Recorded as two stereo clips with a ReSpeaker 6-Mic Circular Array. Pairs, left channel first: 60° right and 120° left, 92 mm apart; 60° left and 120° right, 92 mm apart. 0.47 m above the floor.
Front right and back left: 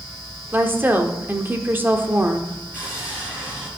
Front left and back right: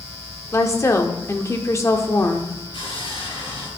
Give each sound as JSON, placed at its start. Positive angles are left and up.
{"t": 0.5, "sound": "a woman speaking", "azimuth_deg": 75, "distance_m": 1.0}
{"t": 2.7, "sound": "sawing", "azimuth_deg": 45, "distance_m": 6.0}